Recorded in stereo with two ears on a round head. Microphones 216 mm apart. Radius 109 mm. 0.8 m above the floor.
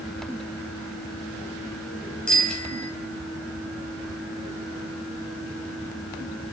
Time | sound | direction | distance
2.3 | a bicycle bell | 5° left (ahead or behind) | 3.5 m